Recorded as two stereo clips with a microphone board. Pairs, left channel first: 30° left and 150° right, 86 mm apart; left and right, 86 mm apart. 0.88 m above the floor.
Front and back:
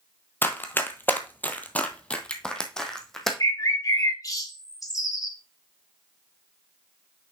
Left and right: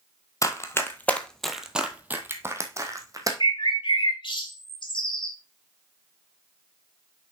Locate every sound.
0.4 s running footsteps: 80° left, 1.1 m; by 3.3 s 55° right, 1.6 m
3.4 s a bird: 75° left, 1.5 m